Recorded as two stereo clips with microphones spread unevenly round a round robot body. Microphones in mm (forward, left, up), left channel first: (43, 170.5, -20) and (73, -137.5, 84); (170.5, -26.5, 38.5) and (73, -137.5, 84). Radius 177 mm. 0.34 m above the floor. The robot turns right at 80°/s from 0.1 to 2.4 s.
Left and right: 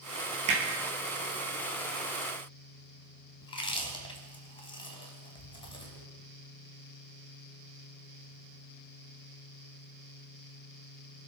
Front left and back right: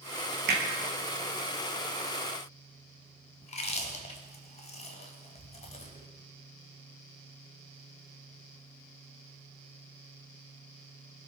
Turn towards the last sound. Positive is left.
turn(degrees=35)